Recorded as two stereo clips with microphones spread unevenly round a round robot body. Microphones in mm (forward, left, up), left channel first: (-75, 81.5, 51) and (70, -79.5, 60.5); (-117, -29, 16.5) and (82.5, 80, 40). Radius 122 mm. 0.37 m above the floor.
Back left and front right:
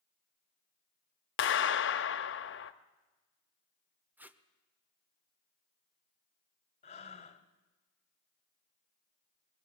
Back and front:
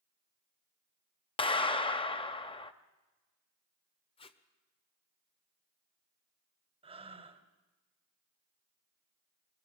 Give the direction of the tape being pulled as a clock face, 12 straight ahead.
4 o'clock.